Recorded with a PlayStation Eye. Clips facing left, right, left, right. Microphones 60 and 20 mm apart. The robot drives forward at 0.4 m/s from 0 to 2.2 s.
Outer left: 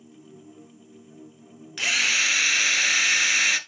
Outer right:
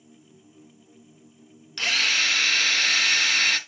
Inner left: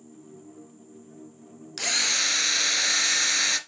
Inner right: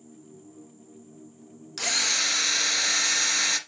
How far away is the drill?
About 0.8 m.